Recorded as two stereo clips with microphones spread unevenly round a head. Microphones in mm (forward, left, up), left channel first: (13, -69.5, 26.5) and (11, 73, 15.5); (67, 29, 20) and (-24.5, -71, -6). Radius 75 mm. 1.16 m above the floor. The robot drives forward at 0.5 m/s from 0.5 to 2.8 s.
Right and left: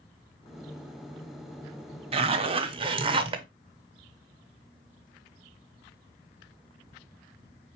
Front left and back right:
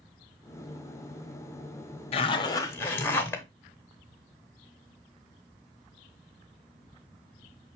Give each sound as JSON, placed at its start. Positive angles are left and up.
{"t": 2.1, "sound": "a zipper", "azimuth_deg": 90, "distance_m": 0.6}